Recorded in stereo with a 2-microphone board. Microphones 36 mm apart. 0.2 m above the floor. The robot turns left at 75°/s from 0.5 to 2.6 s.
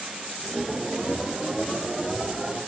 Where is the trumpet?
No trumpet in this recording.